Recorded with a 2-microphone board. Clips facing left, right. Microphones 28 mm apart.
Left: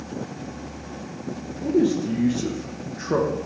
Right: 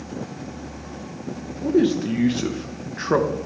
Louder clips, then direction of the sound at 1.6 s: Right 1 dB; 60° right (ahead or behind).